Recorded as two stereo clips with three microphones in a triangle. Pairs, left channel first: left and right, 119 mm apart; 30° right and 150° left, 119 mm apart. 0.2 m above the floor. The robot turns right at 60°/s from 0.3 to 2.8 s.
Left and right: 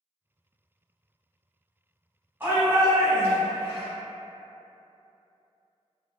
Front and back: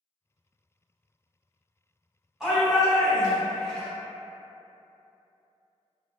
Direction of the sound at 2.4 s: 135° right.